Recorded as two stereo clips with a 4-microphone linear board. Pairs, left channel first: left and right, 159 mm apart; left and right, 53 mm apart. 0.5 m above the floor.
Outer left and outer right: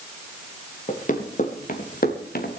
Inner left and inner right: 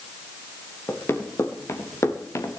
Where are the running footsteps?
50° left (ahead or behind), 3 m; by 2.6 s 70° left (ahead or behind), 2.5 m.